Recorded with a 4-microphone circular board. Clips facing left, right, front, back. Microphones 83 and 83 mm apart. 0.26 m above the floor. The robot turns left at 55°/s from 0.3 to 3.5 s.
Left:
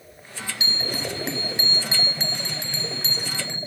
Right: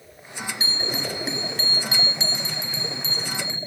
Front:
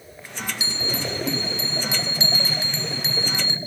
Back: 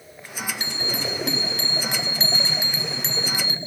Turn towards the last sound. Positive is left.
turn(degrees=60)